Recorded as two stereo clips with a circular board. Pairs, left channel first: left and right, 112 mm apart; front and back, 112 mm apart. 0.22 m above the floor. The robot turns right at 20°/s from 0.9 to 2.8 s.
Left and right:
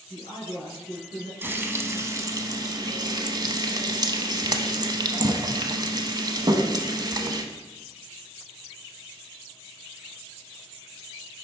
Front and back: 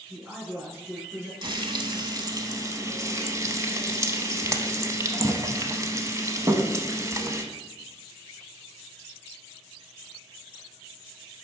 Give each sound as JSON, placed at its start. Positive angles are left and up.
{"t": 0.1, "sound": "a woman speaking", "azimuth_deg": 105, "distance_m": 3.0}
{"t": 1.4, "sound": "frying", "azimuth_deg": -155, "distance_m": 0.8}